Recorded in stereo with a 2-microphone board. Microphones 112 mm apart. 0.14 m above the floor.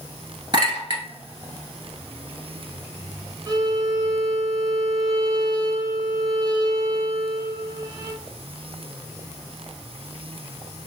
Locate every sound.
0.5 s a clink: 40° right (ahead or behind), 1.4 m
3.5 s a violin: 35° right (ahead or behind), 0.7 m